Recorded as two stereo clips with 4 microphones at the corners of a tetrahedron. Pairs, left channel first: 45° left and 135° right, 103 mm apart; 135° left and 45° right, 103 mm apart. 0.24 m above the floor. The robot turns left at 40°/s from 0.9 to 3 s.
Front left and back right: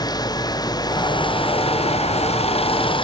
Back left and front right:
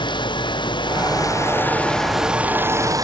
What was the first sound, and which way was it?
Running water, 95° left.